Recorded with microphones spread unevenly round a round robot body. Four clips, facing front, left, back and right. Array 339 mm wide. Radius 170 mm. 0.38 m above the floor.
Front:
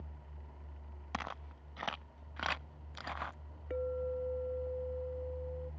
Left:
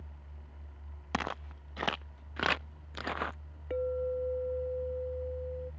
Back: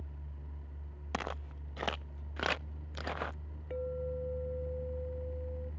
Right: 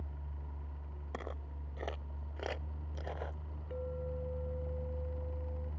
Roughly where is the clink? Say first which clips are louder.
Left 9 dB, front 1 dB; ahead left.